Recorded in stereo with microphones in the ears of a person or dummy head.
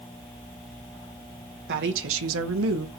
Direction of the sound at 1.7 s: 70° right (ahead or behind).